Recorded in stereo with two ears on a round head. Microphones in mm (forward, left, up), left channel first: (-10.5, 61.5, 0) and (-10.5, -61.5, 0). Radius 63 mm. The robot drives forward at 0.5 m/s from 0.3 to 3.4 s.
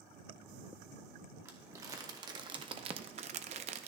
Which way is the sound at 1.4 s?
20° right (ahead or behind).